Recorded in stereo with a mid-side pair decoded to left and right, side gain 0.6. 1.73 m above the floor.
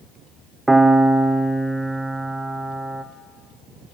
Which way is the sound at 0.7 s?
15° right.